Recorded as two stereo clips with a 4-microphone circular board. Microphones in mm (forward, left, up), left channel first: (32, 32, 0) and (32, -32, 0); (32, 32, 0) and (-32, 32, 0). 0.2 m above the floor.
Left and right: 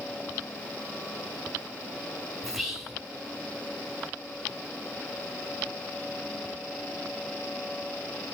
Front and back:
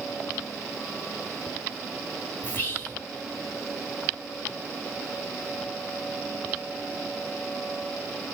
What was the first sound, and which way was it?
Whispering, 15° right.